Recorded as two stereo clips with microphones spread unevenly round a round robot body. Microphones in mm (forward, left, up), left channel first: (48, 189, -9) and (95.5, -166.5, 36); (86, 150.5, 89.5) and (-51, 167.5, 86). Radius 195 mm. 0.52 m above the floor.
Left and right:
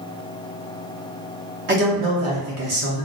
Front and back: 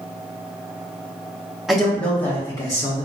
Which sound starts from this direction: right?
A man speaking, at 1.7 s.